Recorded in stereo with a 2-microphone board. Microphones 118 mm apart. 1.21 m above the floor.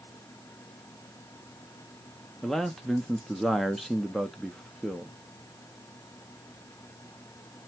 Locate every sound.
2.4 s a man speaking: centre (ahead or behind), 0.6 m